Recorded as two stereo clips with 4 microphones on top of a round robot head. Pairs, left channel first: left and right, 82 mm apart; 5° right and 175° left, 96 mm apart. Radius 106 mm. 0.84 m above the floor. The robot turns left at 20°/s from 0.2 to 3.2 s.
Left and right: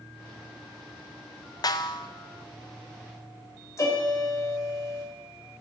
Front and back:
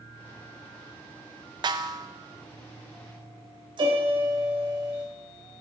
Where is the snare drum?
130° left, 0.6 m; by 2.1 s 125° left, 0.6 m.